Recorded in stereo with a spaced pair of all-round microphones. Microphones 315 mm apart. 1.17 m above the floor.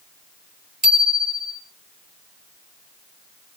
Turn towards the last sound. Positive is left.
turn(degrees=-80)